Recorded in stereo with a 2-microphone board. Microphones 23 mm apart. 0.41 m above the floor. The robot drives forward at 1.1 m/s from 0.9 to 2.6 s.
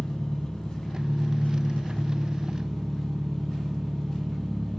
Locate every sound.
0.0 s an engine running: 40° left (ahead or behind), 1.1 m; by 4.8 s 30° left (ahead or behind), 1.2 m